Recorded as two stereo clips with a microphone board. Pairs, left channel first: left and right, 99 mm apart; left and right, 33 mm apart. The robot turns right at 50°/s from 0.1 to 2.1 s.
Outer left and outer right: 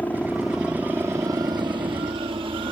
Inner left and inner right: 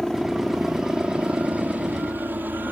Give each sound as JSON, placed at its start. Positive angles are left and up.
{"t": 0.0, "sound": "a helicopter", "azimuth_deg": 160}